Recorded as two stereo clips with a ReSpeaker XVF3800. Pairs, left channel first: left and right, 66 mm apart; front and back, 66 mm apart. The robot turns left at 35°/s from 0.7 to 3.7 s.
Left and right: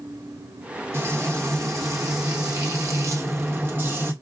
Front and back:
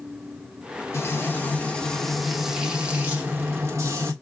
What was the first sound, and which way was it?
Frying, 45° right.